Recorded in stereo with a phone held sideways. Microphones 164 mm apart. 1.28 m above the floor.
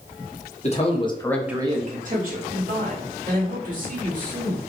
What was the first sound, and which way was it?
A man speaking, 45° left (ahead or behind).